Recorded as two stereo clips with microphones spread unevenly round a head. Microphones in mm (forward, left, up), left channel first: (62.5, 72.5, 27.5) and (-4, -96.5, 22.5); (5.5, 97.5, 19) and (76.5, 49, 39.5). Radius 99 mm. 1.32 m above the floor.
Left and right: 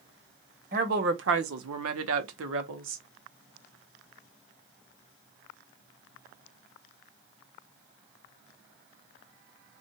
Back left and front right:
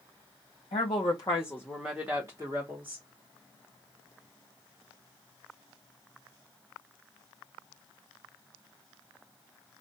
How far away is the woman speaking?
About 0.8 m.